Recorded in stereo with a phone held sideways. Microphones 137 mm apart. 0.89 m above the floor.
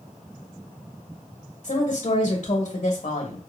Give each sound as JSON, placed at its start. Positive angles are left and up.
{"t": 1.6, "sound": "a woman speaking", "side_deg": 50, "distance_m": 1.7}